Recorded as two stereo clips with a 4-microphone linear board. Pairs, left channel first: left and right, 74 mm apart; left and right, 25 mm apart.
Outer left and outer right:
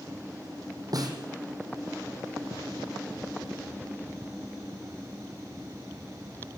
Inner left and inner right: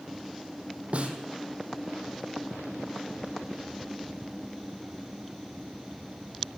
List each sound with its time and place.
0.9 s a snare drum: 60° right (ahead or behind), 3 m